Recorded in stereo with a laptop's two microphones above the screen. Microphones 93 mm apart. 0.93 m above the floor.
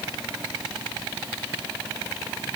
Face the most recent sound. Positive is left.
No sound to turn to.